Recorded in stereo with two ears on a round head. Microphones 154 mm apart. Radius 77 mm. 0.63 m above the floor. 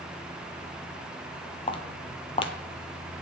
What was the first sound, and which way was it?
Footsteps, 30° left (ahead or behind).